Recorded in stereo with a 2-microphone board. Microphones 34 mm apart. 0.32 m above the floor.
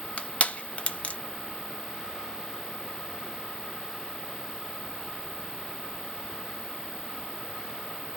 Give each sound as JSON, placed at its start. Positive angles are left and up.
{"t": 0.2, "sound": "crushing", "side_deg": 45, "distance_m": 0.7}